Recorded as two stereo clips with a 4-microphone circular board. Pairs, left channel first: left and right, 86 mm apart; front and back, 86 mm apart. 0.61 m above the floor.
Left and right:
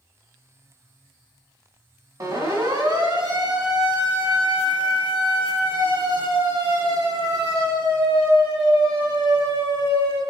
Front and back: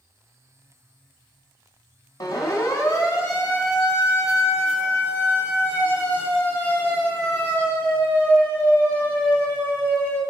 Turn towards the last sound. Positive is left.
turn(degrees=-75)